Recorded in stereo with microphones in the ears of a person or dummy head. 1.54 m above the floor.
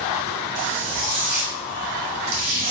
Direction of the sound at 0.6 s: 60° right (ahead or behind).